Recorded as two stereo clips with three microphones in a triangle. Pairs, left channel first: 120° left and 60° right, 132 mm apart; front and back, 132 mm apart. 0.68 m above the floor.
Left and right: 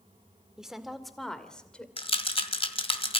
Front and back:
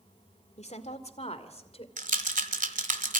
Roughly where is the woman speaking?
Ahead left.